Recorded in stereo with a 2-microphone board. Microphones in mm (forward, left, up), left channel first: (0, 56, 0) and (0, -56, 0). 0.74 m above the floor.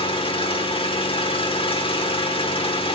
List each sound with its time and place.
0.0 s an engine running: 50° left (ahead or behind), 1.2 m